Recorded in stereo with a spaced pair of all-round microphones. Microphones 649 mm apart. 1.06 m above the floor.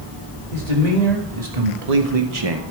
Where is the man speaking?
80° right, 2.5 m; by 2.6 s 30° right (ahead or behind), 0.7 m.